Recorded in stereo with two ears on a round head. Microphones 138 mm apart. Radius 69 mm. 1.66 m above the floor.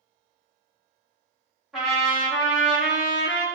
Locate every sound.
1.7 s a trumpet: 5° right (ahead or behind), 1.1 m